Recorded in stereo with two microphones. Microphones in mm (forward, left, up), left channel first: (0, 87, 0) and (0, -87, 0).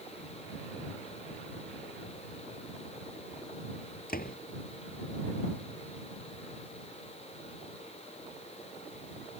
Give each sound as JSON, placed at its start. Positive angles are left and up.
{"t": 4.1, "sound": "a door slam", "side_deg": 60}